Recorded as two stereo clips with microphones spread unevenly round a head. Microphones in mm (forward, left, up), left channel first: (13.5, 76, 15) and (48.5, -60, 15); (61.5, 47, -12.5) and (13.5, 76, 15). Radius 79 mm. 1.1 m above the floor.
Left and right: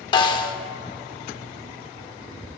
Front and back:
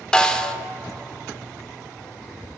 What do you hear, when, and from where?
0.1 s a snare drum: 85° left, 0.8 m